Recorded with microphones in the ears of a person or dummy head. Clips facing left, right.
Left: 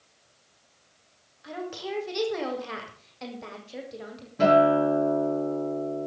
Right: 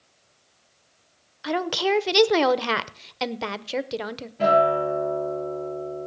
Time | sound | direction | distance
1.4 | a woman speaking | 80° right | 0.8 m
4.4 | a guitar | 65° left (ahead or behind) | 7.5 m